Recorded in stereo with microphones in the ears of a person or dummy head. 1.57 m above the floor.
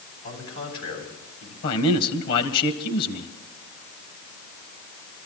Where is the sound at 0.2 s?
80° left, 7.5 m.